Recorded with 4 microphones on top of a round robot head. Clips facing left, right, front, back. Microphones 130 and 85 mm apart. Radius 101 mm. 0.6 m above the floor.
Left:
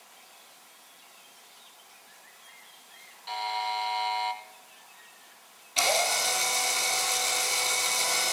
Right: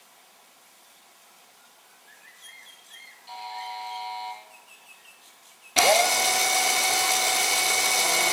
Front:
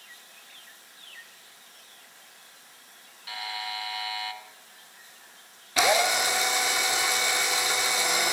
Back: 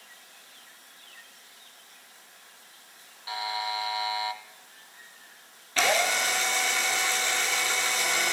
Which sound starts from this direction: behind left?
A buzzer, at 3.3 s.